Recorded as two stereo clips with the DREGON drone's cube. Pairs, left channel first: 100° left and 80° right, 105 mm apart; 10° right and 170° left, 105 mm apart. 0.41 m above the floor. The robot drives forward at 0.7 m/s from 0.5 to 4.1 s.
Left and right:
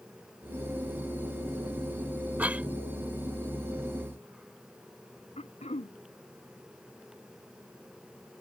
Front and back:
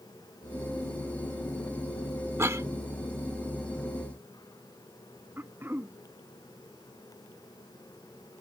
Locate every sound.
2.4 s a cough: 140° right; by 2.7 s 150° right
5.4 s throat clearing: 100° left